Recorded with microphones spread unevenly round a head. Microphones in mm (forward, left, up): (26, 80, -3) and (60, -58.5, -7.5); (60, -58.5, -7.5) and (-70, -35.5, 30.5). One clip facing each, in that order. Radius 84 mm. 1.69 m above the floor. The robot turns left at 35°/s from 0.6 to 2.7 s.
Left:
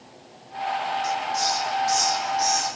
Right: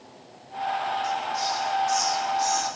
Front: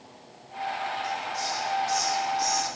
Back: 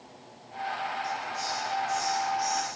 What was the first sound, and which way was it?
A hiss, 80° left.